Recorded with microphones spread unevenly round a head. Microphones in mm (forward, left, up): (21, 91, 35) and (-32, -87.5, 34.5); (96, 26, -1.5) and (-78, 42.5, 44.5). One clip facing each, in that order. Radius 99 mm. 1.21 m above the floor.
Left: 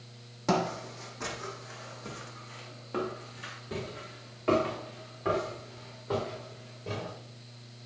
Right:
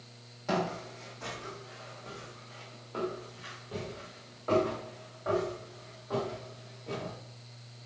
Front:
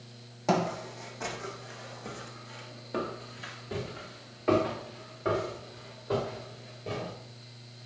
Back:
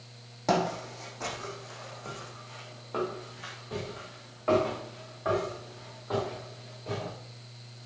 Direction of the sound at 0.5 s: 95° left.